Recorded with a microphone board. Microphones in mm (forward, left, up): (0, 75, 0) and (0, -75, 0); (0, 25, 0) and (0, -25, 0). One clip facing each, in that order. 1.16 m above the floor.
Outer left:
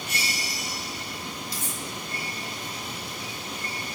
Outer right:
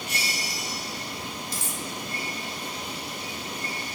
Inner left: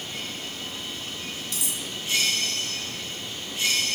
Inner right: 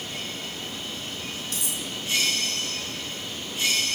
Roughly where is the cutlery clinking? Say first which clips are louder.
Outer right 1 dB, inner right 1 dB; right.